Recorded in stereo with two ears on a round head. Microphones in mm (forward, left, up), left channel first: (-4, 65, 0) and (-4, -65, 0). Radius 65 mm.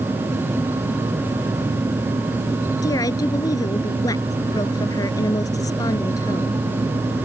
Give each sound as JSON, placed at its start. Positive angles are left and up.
{"t": 2.8, "sound": "a woman speaking", "side_deg": 25}